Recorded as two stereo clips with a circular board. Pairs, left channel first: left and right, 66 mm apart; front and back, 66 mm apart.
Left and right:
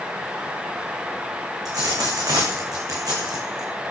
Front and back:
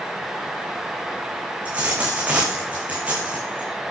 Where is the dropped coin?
110° right, 4 m.